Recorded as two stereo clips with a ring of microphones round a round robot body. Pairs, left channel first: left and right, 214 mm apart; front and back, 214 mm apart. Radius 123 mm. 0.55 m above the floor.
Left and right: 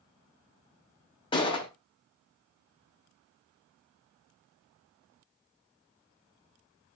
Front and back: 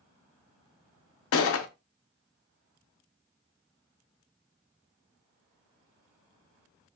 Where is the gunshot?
20° left, 0.5 m.